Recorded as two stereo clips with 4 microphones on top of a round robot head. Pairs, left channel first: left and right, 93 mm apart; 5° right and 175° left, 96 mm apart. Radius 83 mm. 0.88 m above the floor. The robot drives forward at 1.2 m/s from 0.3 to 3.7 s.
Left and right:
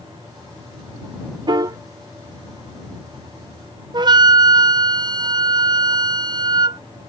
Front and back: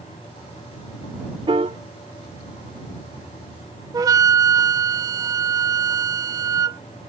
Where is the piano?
130° right; by 1.8 s 140° right.